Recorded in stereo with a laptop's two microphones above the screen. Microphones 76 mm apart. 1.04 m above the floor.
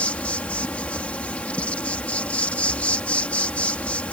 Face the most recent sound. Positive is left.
turn(degrees=20)  # may be behind; listen again after turning